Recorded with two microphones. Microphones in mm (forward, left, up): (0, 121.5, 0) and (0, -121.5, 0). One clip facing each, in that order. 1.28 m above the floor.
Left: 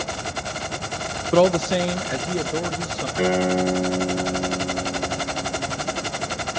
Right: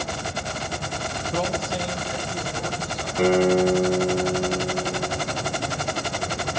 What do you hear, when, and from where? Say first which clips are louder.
1.3 s a man speaking: left 11 dB; 80° left, 0.6 m; by 3.1 s 85° left, 1.5 m
3.2 s a guitar: right 3 dB; 5° left (ahead or behind), 5 m